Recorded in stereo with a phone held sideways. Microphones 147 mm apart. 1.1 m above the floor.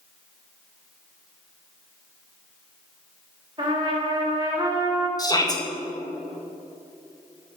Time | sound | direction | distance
3.6 | a trumpet | 30° right (ahead or behind) | 1.9 m
5.2 | a shout | 25° left (ahead or behind) | 1.7 m